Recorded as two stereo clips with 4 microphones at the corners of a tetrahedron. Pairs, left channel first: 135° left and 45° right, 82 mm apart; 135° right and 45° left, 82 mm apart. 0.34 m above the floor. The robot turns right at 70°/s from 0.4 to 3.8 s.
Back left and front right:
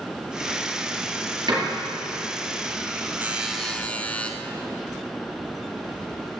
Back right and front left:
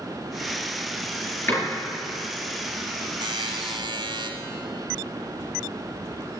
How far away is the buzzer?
About 1.0 m.